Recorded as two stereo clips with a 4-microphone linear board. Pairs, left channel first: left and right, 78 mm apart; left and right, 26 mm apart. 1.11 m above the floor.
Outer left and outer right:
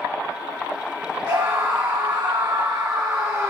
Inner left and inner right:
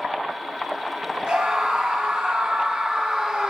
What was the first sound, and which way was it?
A scream, 80° right.